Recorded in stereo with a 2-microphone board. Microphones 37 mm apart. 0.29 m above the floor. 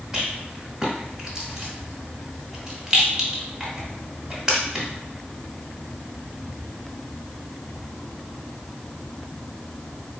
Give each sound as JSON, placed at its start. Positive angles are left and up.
{"t": 0.1, "sound": "a rattle", "side_deg": -15, "distance_m": 1.5}